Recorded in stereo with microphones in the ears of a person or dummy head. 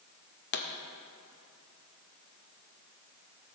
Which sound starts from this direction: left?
A pop, at 0.5 s.